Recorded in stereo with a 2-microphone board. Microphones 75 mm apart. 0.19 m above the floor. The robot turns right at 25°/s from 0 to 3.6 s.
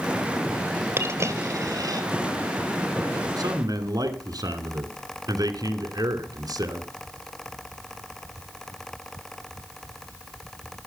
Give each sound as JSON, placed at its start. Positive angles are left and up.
{"t": 1.0, "sound": "a dropped coin", "side_deg": -30, "distance_m": 2.0}
{"t": 3.4, "sound": "a man speaking", "side_deg": -55, "distance_m": 2.0}